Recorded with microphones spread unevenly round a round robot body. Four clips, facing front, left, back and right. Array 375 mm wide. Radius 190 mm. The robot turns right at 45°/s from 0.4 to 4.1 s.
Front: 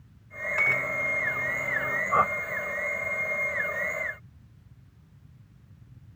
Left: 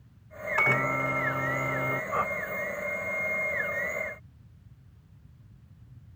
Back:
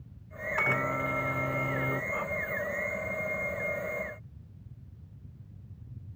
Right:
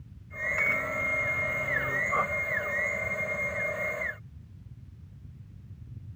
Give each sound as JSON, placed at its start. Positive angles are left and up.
{"t": 0.6, "sound": "a microwave", "azimuth_deg": 105}
{"t": 2.1, "sound": "a whoosh", "azimuth_deg": 5}